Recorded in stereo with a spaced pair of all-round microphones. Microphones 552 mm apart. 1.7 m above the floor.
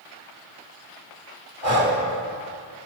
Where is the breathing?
85° right, 2.5 m.